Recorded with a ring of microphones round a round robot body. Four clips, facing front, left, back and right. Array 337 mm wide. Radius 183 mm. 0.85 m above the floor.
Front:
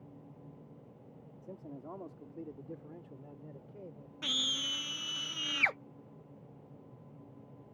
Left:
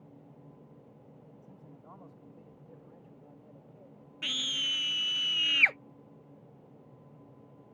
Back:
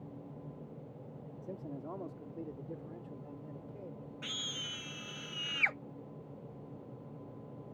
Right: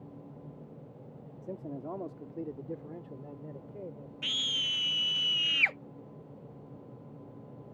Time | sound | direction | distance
1.4 | a man speaking | 100° right | ?
4.2 | a scream | 20° left | ?